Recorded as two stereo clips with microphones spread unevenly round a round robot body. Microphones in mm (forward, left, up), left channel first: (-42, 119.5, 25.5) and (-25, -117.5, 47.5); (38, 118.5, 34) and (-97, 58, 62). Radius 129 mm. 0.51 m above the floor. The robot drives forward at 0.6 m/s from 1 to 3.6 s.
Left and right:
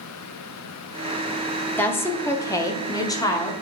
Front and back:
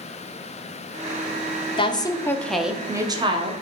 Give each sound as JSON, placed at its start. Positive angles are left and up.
{"t": 1.8, "sound": "a woman speaking", "azimuth_deg": 20, "distance_m": 0.8}